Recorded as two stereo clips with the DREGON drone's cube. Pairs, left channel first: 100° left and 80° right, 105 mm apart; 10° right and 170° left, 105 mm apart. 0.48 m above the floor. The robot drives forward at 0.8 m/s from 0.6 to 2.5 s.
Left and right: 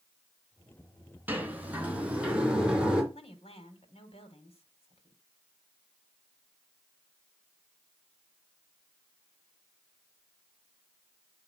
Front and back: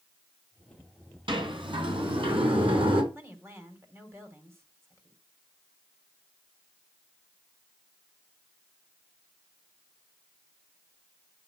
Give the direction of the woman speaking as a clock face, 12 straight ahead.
8 o'clock.